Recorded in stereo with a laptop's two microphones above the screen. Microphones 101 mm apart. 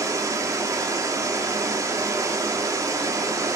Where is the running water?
30° right (ahead or behind), 2.5 m.